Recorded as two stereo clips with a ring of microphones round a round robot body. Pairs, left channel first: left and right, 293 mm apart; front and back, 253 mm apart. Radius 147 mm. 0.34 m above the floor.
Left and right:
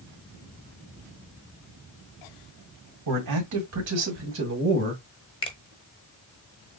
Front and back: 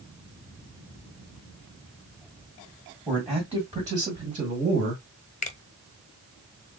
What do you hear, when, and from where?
3.1 s a man speaking: 90° right, 2 m; by 5.0 s 140° right, 1.6 m
5.4 s a finger snap: 30° left, 0.9 m